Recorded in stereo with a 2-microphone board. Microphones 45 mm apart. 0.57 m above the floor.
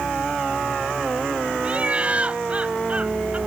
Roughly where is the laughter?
Right.